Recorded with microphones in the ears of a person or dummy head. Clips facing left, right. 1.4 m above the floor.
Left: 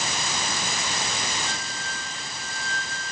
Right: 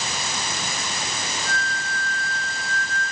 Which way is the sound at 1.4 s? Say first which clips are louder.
Right 4 dB; 20° left (ahead or behind).